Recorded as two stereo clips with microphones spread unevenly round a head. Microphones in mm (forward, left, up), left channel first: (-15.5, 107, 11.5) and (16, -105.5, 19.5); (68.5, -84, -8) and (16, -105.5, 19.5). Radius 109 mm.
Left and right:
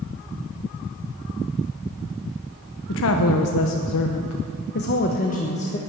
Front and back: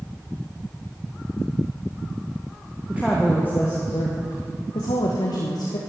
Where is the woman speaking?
130° left, 1.0 m; by 5.8 s 35° left, 1.4 m.